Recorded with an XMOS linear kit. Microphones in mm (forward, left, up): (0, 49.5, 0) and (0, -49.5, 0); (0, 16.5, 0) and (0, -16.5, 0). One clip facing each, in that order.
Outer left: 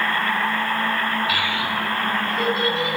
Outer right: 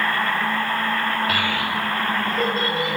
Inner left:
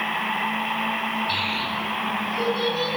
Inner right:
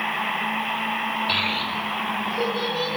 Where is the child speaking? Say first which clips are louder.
Outer right 1 dB, inner right 1 dB; 45° right (ahead or behind), 1.2 m; by 3.0 s 40° right (ahead or behind), 2.5 m.